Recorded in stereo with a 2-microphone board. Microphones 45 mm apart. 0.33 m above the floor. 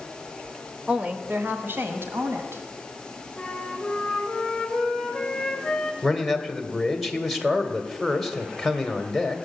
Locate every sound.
0.9 s a woman speaking: 20° right (ahead or behind), 0.9 m; by 2.6 s 65° right (ahead or behind), 2 m
3.4 s a flute: 5° left (ahead or behind), 2 m
6.0 s a man speaking: centre (ahead or behind), 1.6 m